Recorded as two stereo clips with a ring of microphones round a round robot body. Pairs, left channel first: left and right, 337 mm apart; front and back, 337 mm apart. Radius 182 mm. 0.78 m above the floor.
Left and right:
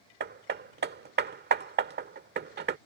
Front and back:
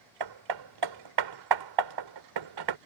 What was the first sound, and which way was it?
Hammering, 150° right.